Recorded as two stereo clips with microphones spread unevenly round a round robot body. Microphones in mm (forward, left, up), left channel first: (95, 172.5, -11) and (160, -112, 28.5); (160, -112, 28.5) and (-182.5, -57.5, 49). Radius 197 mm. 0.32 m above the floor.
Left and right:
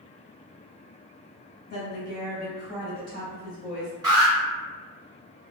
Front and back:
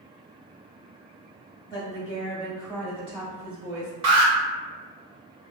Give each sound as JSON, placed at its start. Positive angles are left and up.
{"t": 1.7, "sound": "a woman speaking", "azimuth_deg": 65, "distance_m": 2.0}
{"t": 4.0, "sound": "an alarm", "azimuth_deg": -160, "distance_m": 0.8}